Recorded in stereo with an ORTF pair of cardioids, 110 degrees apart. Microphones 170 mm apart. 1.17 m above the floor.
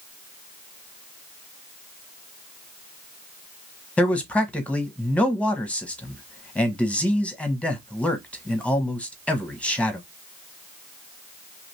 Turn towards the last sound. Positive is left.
turn(degrees=5)